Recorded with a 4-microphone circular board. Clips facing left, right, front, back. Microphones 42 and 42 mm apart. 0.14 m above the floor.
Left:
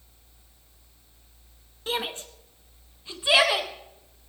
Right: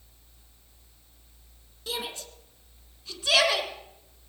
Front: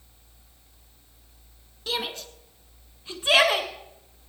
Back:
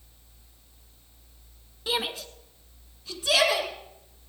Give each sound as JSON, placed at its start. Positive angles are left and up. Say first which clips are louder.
{"t": 1.9, "sound": "a shout", "louder": "left 5 dB, back 1 dB", "azimuth_deg": 110, "distance_m": 1.5}